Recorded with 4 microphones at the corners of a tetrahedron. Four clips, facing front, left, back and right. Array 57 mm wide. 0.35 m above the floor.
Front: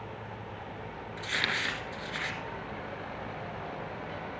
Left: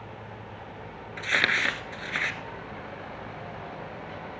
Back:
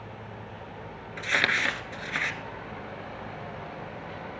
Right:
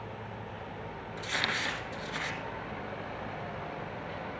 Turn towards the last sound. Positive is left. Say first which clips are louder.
# left 8 dB, back 6 dB
turn(degrees=130)